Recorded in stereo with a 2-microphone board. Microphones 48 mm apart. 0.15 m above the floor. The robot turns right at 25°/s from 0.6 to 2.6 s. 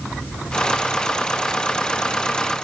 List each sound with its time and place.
Only background noise.